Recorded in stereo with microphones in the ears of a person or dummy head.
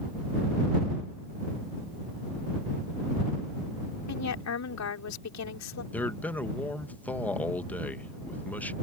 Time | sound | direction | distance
4.1 | a woman speaking | 70° left (ahead or behind) | ?
5.9 | a man speaking | 10° left (ahead or behind) | ?